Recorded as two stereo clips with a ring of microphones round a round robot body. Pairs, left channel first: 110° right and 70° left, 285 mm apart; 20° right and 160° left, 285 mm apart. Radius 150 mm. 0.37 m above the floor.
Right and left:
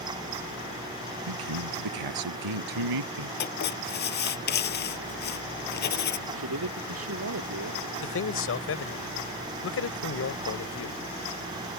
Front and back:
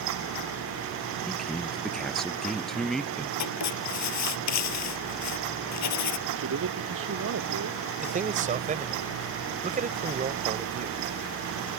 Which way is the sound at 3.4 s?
55° right.